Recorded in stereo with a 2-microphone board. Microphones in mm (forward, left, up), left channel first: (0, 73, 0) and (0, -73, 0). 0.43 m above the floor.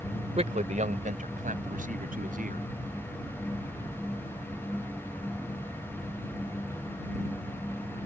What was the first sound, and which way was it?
A man speaking, 50° right (ahead or behind).